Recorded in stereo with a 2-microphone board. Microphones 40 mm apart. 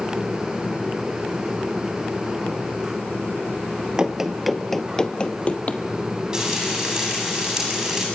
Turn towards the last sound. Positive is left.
turn(degrees=-20)  # may be behind; listen again after turning